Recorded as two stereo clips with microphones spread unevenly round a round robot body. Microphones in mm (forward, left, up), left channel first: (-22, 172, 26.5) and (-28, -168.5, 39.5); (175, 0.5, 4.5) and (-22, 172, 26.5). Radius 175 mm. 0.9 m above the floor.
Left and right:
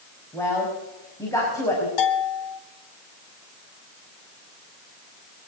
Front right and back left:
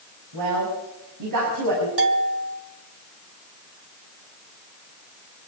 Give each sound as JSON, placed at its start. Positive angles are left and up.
{"t": 0.3, "sound": "a woman speaking", "azimuth_deg": 170, "distance_m": 5.5}
{"t": 2.0, "sound": "a bell", "azimuth_deg": 105, "distance_m": 2.5}